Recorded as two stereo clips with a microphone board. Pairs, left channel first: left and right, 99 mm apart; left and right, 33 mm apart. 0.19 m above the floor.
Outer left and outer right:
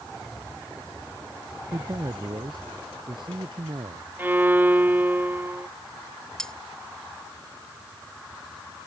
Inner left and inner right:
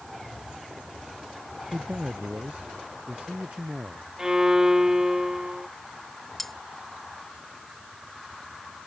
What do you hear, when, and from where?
1.7 s a man speaking: 45° right (ahead or behind); by 4.1 s 60° right (ahead or behind)
4.2 s a violin: 20° right (ahead or behind)
6.4 s cutlery clinking: 5° left (ahead or behind)